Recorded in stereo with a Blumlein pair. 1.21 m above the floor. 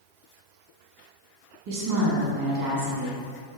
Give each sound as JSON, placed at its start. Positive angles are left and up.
{"t": 1.7, "sound": "a woman speaking", "azimuth_deg": -50, "distance_m": 1.3}